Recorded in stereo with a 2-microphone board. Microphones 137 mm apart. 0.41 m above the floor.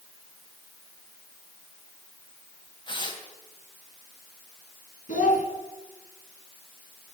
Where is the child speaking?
75° left (ahead or behind), 3 m.